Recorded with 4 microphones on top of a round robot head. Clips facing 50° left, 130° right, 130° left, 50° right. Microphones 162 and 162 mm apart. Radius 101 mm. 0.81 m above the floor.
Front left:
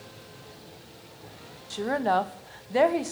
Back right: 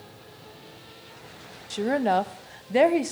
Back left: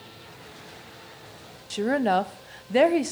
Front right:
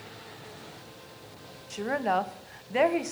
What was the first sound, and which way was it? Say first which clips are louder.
A woman speaking: back right 2 dB, back left 5 dB; 165° left.